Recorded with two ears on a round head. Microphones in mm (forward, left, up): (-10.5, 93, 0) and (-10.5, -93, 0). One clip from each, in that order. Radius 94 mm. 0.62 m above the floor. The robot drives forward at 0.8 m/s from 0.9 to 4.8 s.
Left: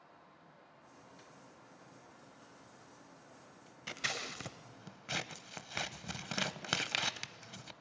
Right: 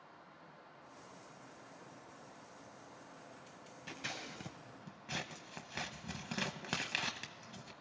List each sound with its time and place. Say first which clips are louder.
3.9 s scissors: left 6 dB; 35° left (ahead or behind), 0.6 m; by 7.7 s 30° left (ahead or behind), 0.6 m